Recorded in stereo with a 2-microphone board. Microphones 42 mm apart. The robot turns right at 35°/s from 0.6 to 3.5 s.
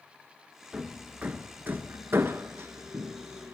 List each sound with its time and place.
0.7 s hammering: 20° right (ahead or behind), 1.3 m; by 3.5 s 60° right (ahead or behind), 1.3 m